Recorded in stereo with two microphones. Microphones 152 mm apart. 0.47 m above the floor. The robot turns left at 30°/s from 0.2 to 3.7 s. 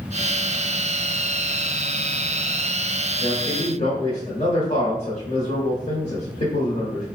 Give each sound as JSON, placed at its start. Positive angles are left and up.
{"t": 3.2, "sound": "a man speaking", "side_deg": 40, "distance_m": 1.1}